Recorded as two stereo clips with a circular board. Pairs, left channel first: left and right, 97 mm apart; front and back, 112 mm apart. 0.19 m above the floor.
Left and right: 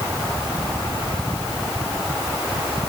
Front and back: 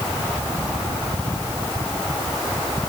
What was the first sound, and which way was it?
Only background noise.